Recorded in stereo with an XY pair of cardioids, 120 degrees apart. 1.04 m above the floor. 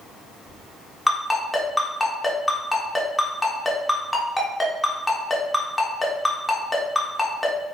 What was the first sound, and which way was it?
A ringtone, 5° left.